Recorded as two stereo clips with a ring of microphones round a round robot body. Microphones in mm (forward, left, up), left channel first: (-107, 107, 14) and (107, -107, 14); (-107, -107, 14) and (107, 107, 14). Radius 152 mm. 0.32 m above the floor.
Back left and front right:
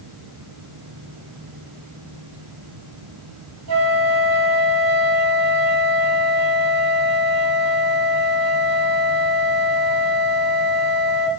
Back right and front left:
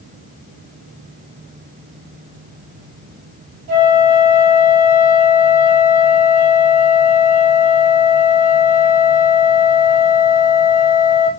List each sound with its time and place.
3.7 s a flute: straight ahead, 4.5 m